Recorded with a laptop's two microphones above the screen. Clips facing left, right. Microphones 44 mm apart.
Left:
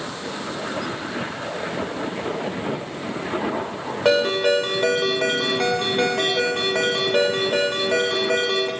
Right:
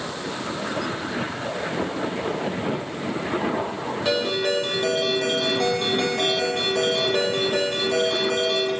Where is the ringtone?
60° left (ahead or behind), 2 m.